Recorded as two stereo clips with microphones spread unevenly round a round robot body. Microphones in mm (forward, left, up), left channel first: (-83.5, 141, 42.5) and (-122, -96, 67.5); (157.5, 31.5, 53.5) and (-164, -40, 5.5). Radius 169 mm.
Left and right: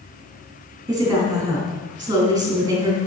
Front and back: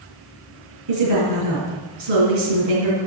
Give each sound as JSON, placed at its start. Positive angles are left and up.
{"t": 0.9, "sound": "a woman speaking", "azimuth_deg": -175, "distance_m": 4.5}